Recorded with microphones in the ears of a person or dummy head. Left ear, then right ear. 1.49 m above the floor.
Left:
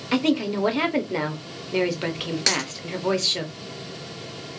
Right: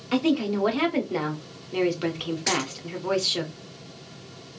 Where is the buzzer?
I don't hear a buzzer.